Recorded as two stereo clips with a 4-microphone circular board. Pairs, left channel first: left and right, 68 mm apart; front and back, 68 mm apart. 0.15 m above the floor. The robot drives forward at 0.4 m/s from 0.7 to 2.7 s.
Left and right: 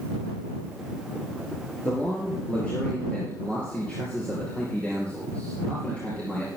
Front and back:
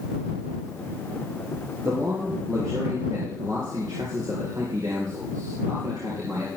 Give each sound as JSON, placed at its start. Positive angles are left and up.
{"t": 1.8, "sound": "a man speaking", "azimuth_deg": 155, "distance_m": 3.0}